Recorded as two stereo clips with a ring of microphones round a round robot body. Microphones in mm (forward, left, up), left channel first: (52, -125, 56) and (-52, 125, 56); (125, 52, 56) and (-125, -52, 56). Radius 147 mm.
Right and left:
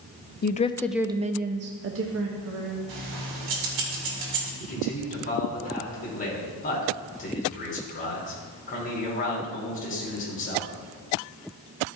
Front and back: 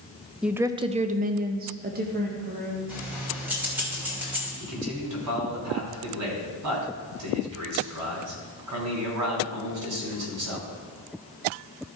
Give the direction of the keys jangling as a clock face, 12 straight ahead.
8 o'clock.